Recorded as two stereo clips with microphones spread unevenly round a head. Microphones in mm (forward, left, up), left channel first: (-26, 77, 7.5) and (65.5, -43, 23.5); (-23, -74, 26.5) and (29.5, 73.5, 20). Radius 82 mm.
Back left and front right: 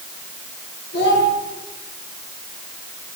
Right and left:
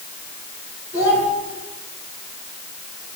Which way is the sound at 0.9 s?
150° left.